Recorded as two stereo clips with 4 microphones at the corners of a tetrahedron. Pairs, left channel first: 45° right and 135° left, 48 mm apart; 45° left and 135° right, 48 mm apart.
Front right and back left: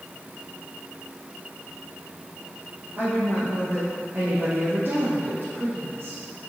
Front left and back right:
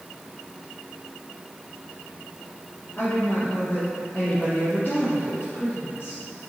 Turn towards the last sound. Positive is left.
turn(degrees=85)